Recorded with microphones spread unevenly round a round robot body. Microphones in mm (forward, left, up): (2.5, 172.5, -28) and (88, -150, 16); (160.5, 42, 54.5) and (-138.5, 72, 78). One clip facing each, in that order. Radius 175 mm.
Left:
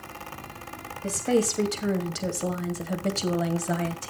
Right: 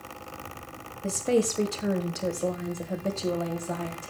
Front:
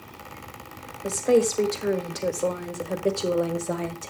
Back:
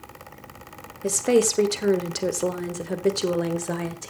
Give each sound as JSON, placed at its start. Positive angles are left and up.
{"t": 1.0, "sound": "a woman speaking", "azimuth_deg": -170, "distance_m": 1.5}